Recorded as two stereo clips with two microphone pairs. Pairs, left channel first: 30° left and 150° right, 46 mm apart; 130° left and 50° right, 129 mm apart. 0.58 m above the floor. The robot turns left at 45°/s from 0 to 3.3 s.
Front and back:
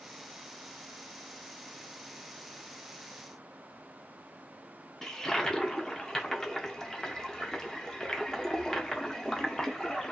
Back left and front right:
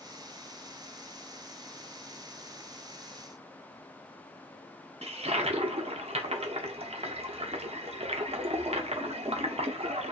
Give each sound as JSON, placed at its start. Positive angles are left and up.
{"t": 5.0, "sound": "a toilet flushing", "azimuth_deg": -45, "distance_m": 0.7}